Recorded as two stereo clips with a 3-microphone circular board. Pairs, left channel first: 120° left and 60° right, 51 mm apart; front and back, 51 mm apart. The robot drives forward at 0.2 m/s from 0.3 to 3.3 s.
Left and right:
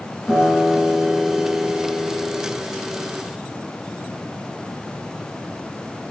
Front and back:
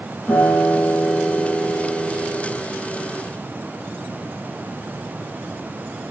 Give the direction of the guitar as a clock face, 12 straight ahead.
10 o'clock.